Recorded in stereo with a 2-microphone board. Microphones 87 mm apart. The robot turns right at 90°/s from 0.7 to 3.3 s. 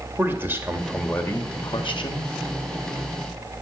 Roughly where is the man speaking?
Ahead right.